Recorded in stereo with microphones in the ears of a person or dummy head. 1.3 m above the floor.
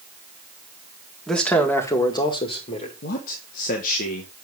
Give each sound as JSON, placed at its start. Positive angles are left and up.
{"t": 1.3, "sound": "a man speaking", "side_deg": 0, "distance_m": 1.8}
{"t": 3.0, "sound": "a man speaking", "side_deg": 50, "distance_m": 1.4}